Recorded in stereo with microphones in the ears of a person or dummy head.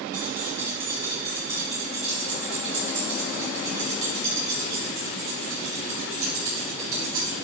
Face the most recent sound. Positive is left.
turn(degrees=-40)  # may be behind; listen again after turning